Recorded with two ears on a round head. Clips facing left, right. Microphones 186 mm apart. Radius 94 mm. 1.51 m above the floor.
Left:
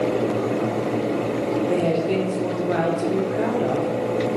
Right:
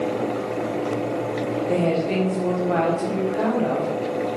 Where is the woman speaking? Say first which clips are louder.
Right 2 dB; 15° left (ahead or behind), 1.0 m.